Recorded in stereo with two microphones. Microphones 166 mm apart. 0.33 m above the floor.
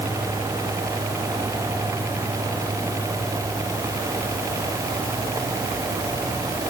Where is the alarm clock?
No alarm clock in this recording.